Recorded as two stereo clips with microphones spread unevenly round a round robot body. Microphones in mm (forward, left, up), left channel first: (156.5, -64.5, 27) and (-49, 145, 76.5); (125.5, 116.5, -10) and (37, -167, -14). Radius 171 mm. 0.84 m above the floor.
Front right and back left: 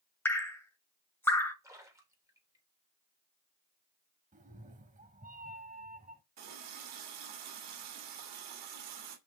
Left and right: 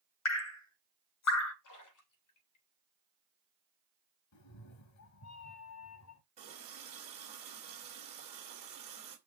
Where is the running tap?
Straight behind, 2 m.